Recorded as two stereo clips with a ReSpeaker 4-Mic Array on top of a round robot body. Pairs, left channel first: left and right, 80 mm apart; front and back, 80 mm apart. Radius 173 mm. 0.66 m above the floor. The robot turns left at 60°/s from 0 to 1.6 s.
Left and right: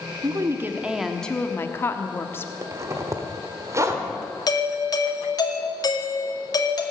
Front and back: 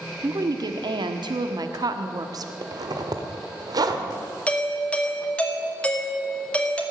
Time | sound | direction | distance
0.2 | a woman speaking | 130° right | 1.3 m
2.6 | a zipper | 140° right | 1.4 m
4.5 | a doorbell | 75° left | 2.5 m